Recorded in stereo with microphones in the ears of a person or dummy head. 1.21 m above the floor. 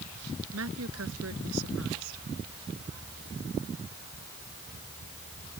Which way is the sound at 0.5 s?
85° right.